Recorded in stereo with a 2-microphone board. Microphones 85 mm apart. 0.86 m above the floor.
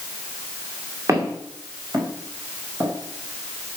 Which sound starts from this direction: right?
Footsteps, at 1.1 s.